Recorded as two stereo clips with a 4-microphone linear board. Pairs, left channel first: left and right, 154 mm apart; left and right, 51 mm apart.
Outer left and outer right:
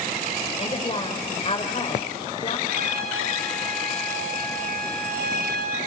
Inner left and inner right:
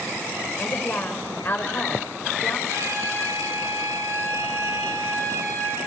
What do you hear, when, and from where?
0.6 s a woman speaking: 35° left (ahead or behind), 4.5 m
2.7 s a trumpet: 75° right (ahead or behind), 7.5 m